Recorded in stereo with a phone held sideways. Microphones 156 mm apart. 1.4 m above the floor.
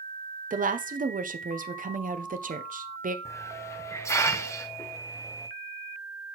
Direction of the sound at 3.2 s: 20° left (ahead or behind).